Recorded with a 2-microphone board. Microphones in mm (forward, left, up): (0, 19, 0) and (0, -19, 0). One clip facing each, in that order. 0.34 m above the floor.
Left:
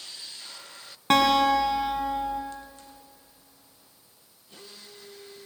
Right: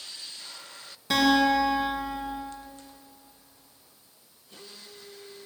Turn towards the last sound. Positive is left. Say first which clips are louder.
# left 1 dB
turn(degrees=60)  # may be behind; listen again after turning